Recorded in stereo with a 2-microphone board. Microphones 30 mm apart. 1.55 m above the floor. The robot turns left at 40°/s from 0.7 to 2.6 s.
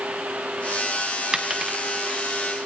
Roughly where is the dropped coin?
Right.